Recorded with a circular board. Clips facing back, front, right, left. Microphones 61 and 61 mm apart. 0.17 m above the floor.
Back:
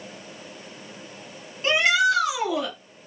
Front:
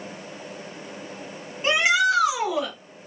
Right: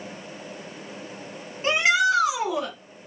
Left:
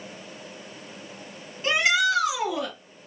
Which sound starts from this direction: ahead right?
A shout, at 1.6 s.